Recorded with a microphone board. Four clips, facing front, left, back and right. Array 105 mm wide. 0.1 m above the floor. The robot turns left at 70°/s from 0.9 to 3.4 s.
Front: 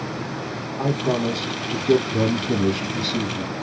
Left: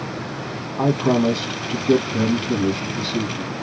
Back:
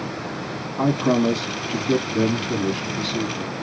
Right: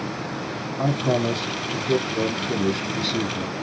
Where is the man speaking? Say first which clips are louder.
Left 5 dB, back 4 dB; 105° left, 3.5 m; by 3.5 s 70° right, 3.5 m.